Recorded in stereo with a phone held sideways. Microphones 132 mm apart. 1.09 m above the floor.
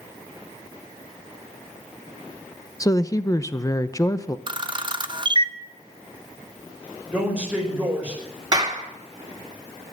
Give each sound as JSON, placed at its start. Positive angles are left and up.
{"t": 2.8, "sound": "a woman speaking", "side_deg": 25, "distance_m": 0.8}
{"t": 4.5, "sound": "a camera shutter", "side_deg": -35, "distance_m": 0.9}
{"t": 7.1, "sound": "a man speaking", "side_deg": -10, "distance_m": 5.0}
{"t": 8.5, "sound": "a clap", "side_deg": -30, "distance_m": 2.5}